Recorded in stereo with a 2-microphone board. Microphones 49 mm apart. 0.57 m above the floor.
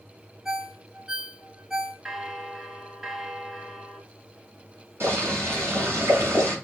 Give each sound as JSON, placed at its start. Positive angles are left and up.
{"t": 0.5, "sound": "a ringtone", "side_deg": -15, "distance_m": 2.5}
{"t": 2.0, "sound": "a bell", "side_deg": -10, "distance_m": 0.8}
{"t": 5.0, "sound": "boiling", "side_deg": -65, "distance_m": 6.0}